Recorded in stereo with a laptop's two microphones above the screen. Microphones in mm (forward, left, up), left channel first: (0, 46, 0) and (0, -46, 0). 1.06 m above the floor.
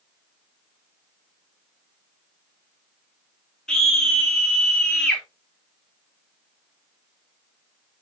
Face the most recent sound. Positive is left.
turn(degrees=5)  # may be behind; listen again after turning